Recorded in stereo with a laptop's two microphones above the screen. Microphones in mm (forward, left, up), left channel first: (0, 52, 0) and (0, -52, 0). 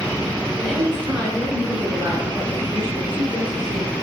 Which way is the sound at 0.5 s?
10° left (ahead or behind).